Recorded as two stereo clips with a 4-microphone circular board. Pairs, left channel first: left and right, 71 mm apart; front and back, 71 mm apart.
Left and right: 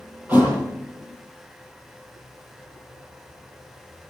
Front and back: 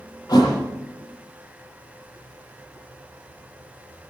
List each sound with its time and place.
0.3 s a thud: 25° right, 7.5 m